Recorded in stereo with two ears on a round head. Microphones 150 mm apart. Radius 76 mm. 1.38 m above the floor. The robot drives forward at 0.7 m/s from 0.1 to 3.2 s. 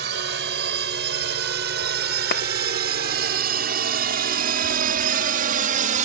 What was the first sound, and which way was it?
A drone, 75° right (ahead or behind).